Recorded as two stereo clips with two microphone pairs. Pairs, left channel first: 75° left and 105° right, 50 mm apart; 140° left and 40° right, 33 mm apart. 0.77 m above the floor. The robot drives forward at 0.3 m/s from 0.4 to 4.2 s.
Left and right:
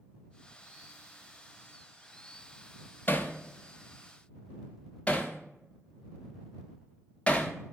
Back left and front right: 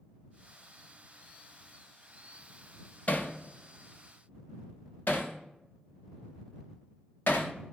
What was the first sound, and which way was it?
Hammering, 115° left.